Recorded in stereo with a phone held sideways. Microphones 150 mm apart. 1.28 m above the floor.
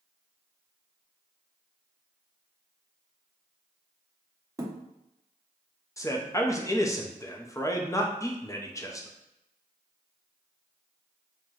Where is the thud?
20° right (ahead or behind), 0.7 m.